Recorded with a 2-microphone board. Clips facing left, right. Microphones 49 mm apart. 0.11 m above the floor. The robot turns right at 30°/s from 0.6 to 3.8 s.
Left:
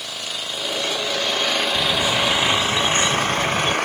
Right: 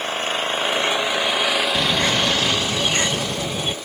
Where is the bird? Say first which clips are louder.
Right 1 dB; 70° right; by 3.8 s 10° right.